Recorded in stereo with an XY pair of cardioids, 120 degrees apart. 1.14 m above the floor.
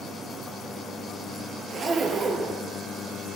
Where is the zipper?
40° right, 5.5 m.